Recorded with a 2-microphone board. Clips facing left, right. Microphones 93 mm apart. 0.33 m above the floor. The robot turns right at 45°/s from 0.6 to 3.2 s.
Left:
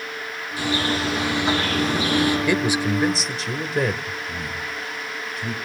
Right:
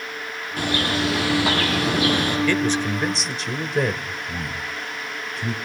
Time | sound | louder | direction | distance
0.6 | a bird | even | 125° right | 8.5 m
2.5 | a man speaking | even | 15° left (ahead or behind) | 1.4 m
4.3 | a man speaking | even | 30° right (ahead or behind) | 2.5 m